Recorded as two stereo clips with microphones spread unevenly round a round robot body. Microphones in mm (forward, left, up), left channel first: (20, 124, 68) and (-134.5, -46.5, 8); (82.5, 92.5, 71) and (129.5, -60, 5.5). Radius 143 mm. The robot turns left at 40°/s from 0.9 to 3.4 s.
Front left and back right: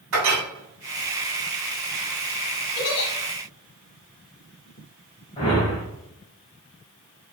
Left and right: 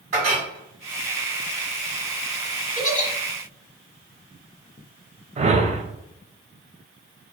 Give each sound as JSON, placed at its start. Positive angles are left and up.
{"t": 0.1, "sound": "a clink", "azimuth_deg": -110, "distance_m": 2.0}
{"t": 2.8, "sound": "a giggle", "azimuth_deg": 60, "distance_m": 1.3}
{"t": 5.4, "sound": "a whoosh", "azimuth_deg": -25, "distance_m": 0.8}